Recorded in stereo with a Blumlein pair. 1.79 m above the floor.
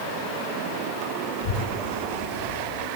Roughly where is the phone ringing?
No phone ringing in this recording.